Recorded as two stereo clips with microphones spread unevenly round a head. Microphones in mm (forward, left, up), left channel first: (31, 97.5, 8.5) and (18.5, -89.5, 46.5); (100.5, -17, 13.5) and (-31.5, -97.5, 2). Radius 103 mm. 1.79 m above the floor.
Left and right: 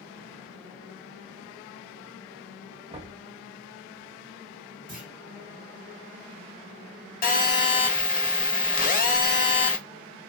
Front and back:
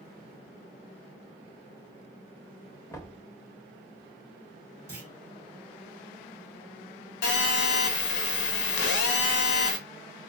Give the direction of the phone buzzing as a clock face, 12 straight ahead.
11 o'clock.